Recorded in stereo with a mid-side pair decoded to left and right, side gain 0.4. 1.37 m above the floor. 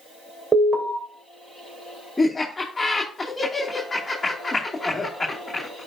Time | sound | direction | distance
0.5 | an alarm | 35° right | 4 m
2.2 | laughter | 20° left | 2 m